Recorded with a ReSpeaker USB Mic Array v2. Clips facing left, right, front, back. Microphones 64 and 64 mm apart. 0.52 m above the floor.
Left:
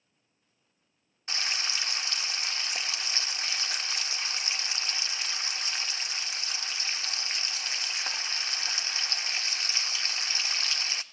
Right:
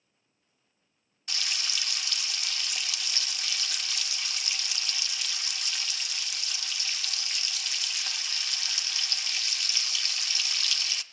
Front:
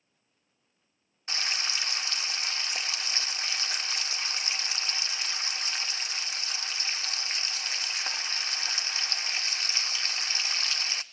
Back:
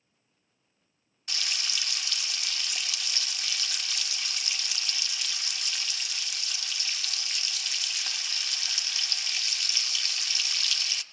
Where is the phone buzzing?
No phone buzzing in this recording.